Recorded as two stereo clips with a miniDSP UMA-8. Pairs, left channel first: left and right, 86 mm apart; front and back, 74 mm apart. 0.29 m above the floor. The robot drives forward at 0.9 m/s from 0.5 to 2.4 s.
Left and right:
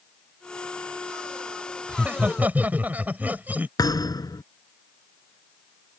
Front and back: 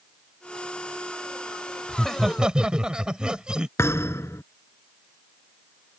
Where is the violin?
No violin in this recording.